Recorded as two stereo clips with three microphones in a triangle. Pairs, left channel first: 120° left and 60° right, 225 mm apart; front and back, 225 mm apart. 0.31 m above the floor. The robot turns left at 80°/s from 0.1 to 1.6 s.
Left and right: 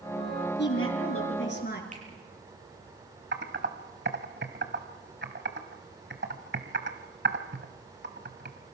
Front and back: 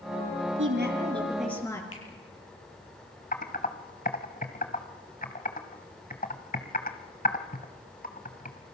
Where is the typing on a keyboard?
40° right, 1.8 m.